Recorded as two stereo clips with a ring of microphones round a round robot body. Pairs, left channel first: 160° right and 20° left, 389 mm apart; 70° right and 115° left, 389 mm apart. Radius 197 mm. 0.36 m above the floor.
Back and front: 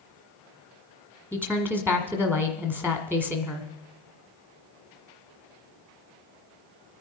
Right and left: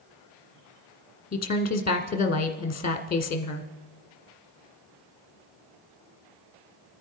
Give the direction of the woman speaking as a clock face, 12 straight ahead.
3 o'clock.